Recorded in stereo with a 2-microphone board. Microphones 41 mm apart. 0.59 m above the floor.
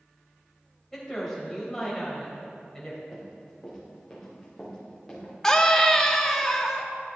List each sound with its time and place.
0.9 s a woman speaking: 10° left (ahead or behind), 3 m
3.1 s running footsteps: 5° left (ahead or behind), 3.5 m; by 5.3 s 15° left (ahead or behind), 4.5 m
5.4 s a scream: 10° left (ahead or behind), 0.6 m